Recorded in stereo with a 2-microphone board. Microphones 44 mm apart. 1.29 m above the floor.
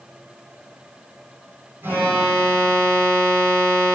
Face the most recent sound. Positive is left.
turn(degrees=-65)  # may be behind; listen again after turning